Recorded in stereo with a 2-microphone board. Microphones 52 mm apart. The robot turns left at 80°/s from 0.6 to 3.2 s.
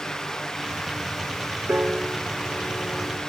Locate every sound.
1.7 s a piano: 135° right, 0.8 m; by 3.2 s 105° left, 0.8 m